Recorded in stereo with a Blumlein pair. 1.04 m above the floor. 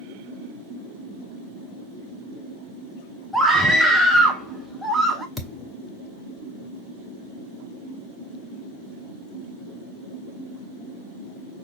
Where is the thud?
5° left, 1.0 m.